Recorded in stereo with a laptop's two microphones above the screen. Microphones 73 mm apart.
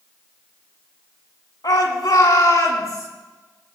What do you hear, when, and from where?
1.6 s a shout: 65° left (ahead or behind), 3.5 m; by 3.1 s 50° left (ahead or behind), 4 m